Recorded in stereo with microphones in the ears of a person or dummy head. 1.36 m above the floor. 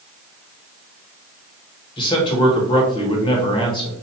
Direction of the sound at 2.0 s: 25° left (ahead or behind).